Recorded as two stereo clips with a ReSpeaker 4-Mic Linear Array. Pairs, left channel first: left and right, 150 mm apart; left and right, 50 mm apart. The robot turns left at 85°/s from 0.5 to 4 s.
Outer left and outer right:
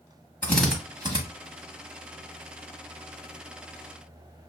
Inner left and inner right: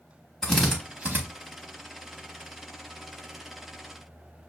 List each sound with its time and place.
0.4 s a drill: 10° left (ahead or behind), 1.1 m; by 1.2 s 40° right (ahead or behind), 1.1 m